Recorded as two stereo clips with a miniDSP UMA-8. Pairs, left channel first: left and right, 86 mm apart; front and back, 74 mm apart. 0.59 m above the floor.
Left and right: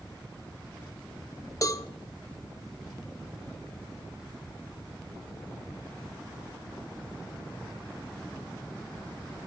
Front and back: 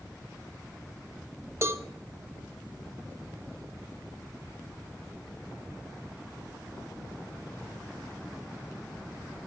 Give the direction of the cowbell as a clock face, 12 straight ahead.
8 o'clock.